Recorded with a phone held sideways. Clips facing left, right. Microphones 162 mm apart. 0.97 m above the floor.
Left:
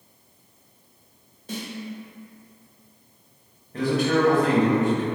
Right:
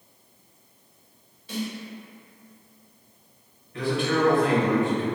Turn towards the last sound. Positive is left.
turn(degrees=40)  # may be behind; listen again after turning